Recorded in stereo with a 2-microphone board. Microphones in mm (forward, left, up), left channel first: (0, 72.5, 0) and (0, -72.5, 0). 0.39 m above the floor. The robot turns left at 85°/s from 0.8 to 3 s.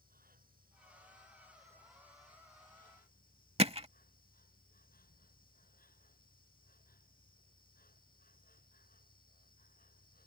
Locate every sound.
0.0 s an insect: 85° right; by 10.3 s 90° left
3.6 s hammering: 45° right (ahead or behind)